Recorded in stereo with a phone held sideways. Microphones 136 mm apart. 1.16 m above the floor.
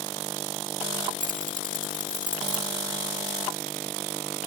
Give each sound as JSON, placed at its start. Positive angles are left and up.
{"t": 1.2, "sound": "keys jangling", "side_deg": -65}